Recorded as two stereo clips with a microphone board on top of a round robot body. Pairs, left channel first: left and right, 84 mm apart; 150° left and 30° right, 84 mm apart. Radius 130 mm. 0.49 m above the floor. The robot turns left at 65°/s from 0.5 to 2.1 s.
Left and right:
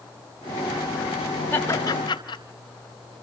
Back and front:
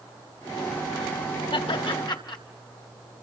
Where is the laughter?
160° left, 4 m; by 2.4 s 120° left, 4 m.